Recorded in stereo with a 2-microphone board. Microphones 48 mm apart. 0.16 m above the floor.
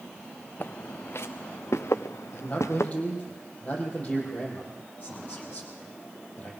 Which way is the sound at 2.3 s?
30° left (ahead or behind).